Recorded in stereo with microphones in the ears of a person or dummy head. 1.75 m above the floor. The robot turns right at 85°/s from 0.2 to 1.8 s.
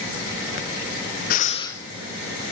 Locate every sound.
1.3 s breathing: 130° left, 0.6 m; by 1.8 s 175° left, 0.6 m